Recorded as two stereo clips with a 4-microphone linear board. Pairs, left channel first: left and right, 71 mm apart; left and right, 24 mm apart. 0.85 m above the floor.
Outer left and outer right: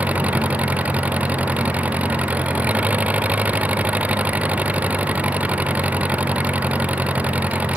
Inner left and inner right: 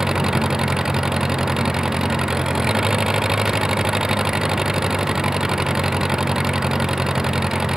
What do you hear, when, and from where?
0.0 s an engine running: 20° right (ahead or behind)